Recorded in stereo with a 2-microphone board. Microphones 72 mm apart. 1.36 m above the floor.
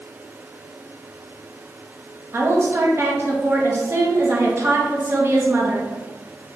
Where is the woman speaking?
35° right (ahead or behind), 0.9 m.